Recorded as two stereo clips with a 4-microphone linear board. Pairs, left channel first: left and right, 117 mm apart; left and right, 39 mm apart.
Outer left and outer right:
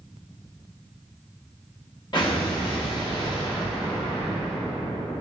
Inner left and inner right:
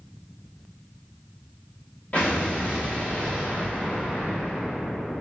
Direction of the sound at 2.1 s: 40° left (ahead or behind).